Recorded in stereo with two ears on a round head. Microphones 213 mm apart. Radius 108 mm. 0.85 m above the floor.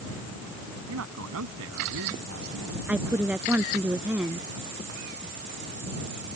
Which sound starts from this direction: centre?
A woman speaking, at 2.9 s.